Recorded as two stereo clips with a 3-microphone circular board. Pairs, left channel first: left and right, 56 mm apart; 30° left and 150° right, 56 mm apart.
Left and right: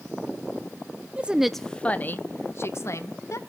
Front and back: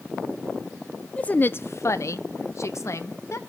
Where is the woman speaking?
30° right, 0.6 m; by 3.4 s 65° left, 1.5 m.